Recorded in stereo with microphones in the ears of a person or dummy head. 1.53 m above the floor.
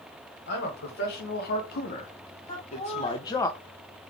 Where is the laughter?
40° left (ahead or behind), 1.3 m.